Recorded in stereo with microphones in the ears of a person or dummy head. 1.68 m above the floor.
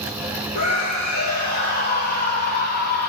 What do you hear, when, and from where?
0.6 s a scream: 50° left (ahead or behind), 3 m; by 3.1 s 55° left (ahead or behind), 1.1 m